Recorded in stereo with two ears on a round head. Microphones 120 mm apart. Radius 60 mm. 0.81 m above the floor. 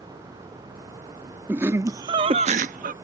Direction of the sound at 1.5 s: 15° right (ahead or behind).